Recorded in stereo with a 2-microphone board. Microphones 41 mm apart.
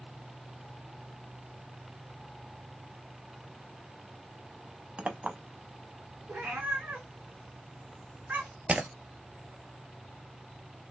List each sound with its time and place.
5.0 s a clink: 30° right (ahead or behind), 0.7 m
6.3 s a cat meowing: 50° right (ahead or behind), 1.4 m
8.7 s breaking glass: 35° right (ahead or behind), 0.6 m